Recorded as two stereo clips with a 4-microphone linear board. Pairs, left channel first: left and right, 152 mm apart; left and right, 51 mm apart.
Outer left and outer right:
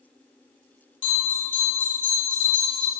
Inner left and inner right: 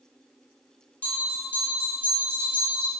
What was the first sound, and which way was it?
A bell, 35° left (ahead or behind).